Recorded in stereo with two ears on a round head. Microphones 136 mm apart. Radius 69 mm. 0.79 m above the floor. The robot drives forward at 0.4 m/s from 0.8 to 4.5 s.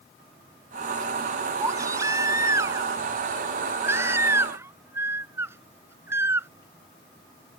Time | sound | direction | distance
1.6 | a baby crying | 20° right (ahead or behind) | ?